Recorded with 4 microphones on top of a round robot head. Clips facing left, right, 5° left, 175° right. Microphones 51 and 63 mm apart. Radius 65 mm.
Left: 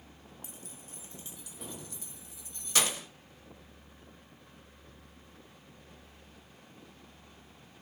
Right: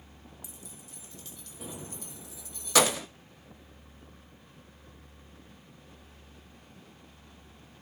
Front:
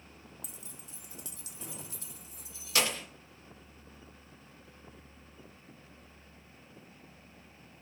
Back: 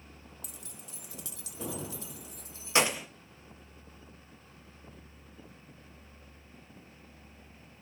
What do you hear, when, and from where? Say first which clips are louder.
0.4 s keys jangling: even, back 1 dB; 150° left, 1.0 m; by 3.1 s 95° right, 0.7 m